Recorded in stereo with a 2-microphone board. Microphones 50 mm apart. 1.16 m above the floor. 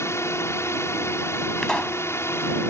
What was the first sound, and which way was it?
A drone, 60° left (ahead or behind).